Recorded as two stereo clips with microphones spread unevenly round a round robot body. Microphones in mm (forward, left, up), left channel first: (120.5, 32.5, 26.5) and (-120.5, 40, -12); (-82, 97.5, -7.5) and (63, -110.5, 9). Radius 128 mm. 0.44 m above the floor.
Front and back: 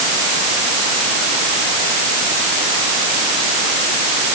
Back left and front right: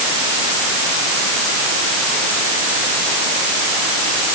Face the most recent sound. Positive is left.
No sound to turn to.